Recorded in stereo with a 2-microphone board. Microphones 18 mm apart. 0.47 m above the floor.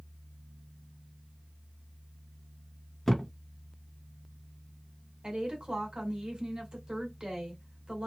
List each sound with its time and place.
3.1 s a thud: 10° left (ahead or behind), 0.8 m
5.2 s a woman speaking: 50° right (ahead or behind), 2.0 m